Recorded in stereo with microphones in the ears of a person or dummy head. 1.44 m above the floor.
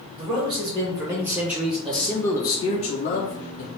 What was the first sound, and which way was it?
A man speaking, 25° right (ahead or behind).